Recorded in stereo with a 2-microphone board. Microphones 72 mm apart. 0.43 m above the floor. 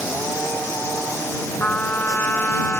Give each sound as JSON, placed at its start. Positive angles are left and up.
{"t": 1.6, "sound": "a trumpet", "side_deg": 30}